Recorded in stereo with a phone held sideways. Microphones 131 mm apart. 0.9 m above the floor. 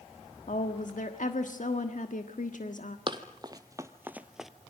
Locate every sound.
0.5 s a woman speaking: 70° left (ahead or behind), 1.5 m
3.1 s running footsteps: 35° right (ahead or behind), 1.4 m; by 4.5 s centre (ahead or behind), 0.9 m